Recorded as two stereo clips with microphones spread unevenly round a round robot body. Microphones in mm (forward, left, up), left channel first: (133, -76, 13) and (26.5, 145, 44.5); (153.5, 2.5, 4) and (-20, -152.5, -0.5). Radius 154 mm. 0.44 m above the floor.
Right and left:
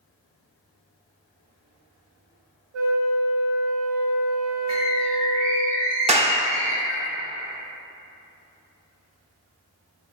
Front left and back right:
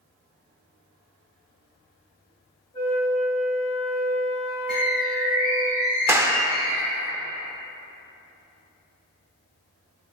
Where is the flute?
115° left, 1.2 m.